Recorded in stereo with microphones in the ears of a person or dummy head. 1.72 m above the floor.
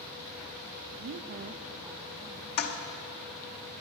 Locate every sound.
0.9 s a woman speaking: 45° right (ahead or behind), 0.7 m; by 2.5 s 10° right (ahead or behind), 1.8 m
2.6 s a toilet flushing: 50° left (ahead or behind), 1.0 m